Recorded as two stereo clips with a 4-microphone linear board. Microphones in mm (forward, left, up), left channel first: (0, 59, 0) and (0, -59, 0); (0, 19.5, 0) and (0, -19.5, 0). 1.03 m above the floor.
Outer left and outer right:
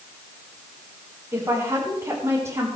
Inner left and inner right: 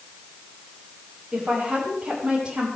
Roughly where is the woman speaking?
Right.